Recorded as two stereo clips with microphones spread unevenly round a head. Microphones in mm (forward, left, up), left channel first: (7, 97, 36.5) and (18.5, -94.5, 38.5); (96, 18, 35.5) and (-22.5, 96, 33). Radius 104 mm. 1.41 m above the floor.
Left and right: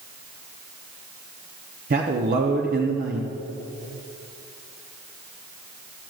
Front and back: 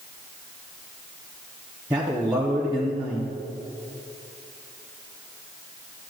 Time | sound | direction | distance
1.9 | a man speaking | 135° right | 0.6 m